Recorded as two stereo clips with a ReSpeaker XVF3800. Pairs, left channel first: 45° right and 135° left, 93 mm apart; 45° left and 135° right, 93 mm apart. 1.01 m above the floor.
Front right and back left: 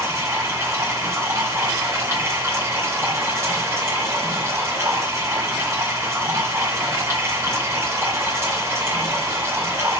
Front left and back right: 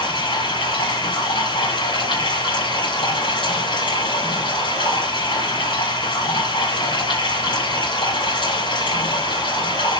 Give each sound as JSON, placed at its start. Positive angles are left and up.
{"t": 0.0, "sound": "running water", "azimuth_deg": 70, "distance_m": 8.5}